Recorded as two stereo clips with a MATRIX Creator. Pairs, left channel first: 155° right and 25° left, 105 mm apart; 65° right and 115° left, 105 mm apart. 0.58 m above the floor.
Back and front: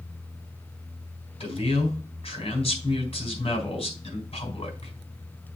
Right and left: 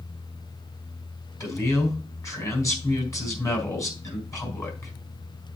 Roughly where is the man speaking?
Behind right.